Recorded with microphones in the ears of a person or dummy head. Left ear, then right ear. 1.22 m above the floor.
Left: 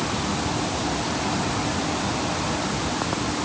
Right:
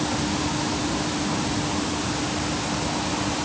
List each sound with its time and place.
Only background noise.